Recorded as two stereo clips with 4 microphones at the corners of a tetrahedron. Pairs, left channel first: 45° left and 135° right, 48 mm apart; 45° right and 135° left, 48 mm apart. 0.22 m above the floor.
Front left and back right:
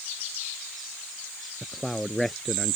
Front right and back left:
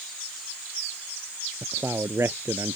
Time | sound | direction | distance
1.6 | a man speaking | 130° left | ?